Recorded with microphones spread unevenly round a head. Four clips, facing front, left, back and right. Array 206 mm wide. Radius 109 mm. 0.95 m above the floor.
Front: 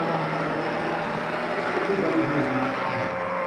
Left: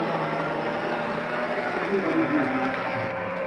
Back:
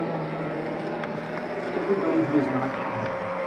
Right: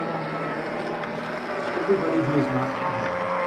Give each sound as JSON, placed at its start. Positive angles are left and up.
{"t": 1.7, "sound": "a man speaking", "azimuth_deg": -85, "distance_m": 4.0}